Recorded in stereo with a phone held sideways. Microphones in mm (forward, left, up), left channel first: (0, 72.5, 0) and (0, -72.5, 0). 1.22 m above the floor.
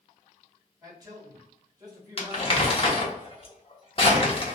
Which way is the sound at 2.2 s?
40° left (ahead or behind).